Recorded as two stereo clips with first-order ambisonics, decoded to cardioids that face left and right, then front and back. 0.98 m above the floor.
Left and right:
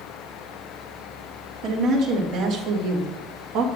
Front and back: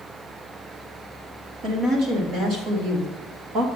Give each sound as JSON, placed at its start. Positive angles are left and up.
{"t": 1.6, "sound": "a woman speaking", "azimuth_deg": -135, "distance_m": 2.5}